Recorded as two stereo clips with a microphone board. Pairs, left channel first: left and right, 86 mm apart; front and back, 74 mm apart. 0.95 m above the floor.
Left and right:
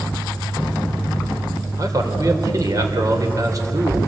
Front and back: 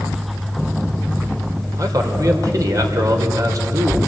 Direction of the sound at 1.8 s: 140° right.